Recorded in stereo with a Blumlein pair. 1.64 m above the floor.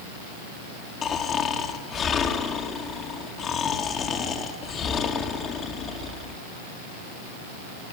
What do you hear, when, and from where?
1.0 s snoring: 25° left, 2 m